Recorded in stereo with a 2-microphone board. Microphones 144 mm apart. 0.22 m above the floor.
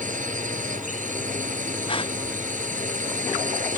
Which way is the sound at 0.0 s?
65° right (ahead or behind).